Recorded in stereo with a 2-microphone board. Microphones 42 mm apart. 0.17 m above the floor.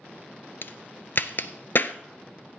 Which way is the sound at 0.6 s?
55° left (ahead or behind).